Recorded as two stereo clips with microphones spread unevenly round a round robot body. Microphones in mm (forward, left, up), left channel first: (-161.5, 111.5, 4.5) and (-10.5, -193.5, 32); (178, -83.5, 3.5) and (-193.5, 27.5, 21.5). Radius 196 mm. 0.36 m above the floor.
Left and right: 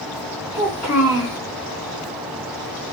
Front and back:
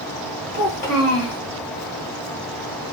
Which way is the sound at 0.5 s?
20° left.